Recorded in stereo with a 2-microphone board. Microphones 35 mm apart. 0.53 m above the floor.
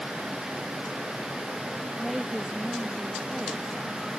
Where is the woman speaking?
Centre (ahead or behind).